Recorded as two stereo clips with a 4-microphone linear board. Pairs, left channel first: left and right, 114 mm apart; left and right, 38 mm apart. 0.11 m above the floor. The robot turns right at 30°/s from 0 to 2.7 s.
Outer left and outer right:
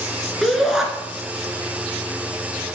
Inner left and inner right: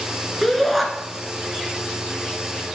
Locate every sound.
0.4 s a shout: centre (ahead or behind), 1.8 m; by 0.8 s 5° right (ahead or behind), 1.8 m